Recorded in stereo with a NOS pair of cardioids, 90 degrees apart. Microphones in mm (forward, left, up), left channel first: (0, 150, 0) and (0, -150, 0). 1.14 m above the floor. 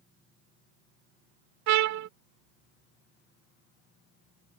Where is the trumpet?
65° right.